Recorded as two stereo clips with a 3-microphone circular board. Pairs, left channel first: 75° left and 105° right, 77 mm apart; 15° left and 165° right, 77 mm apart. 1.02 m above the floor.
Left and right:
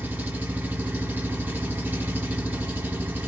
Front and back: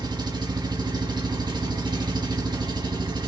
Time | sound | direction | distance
0.0 | an engine running | 170° right | 1.0 m